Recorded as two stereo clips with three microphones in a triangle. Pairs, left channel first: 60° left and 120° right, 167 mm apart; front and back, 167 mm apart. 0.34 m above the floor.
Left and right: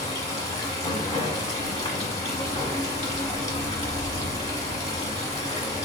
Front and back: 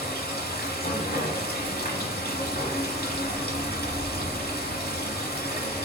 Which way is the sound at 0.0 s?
15° left.